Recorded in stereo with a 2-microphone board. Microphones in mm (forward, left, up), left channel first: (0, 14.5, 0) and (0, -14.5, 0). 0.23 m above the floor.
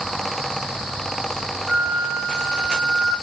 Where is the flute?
20° right (ahead or behind), 1.8 m.